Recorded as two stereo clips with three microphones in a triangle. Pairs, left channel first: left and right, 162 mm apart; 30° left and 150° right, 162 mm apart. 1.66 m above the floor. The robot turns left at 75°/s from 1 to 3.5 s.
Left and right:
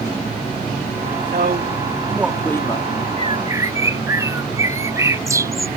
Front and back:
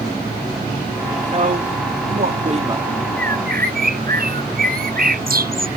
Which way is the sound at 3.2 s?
135° right.